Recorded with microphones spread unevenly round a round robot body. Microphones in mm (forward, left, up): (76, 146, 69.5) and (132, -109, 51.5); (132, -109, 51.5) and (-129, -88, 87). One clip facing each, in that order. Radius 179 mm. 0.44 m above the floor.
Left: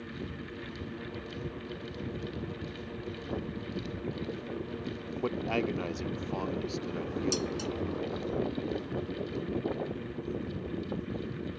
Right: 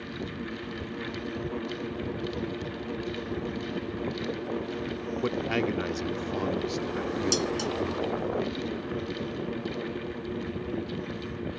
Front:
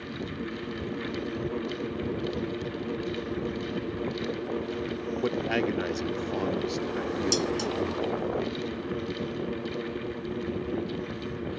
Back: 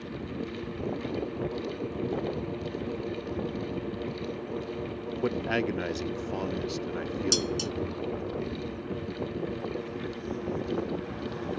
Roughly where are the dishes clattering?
Right.